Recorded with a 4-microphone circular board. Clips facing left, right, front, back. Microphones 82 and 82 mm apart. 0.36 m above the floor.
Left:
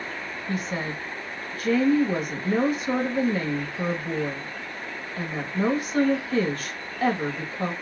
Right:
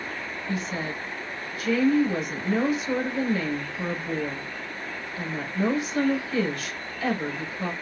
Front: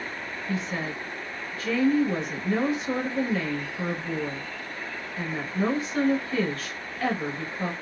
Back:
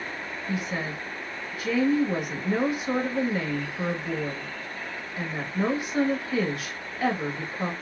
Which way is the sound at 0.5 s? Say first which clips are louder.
Left 1 dB, even; 110° left.